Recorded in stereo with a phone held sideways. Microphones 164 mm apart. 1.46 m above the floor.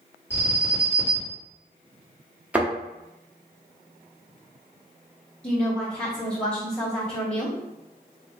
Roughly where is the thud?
Centre.